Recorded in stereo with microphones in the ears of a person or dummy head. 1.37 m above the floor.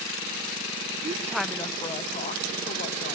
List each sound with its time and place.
1.0 s a woman speaking: 30° right (ahead or behind), 0.5 m; by 3.2 s 50° left (ahead or behind), 1.8 m